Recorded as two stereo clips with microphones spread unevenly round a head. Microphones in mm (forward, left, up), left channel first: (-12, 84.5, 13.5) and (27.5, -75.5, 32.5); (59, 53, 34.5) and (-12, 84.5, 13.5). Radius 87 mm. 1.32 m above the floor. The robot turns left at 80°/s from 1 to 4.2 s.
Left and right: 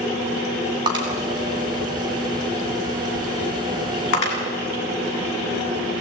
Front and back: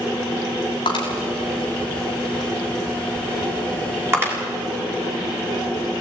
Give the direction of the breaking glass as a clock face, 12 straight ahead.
12 o'clock.